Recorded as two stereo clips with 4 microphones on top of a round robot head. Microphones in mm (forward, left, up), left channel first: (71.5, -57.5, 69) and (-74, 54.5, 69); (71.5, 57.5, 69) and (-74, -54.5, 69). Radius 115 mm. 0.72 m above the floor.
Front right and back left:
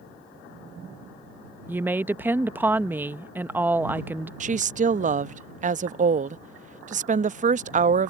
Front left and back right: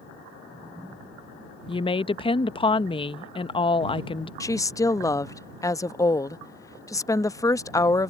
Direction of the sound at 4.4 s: 105° left.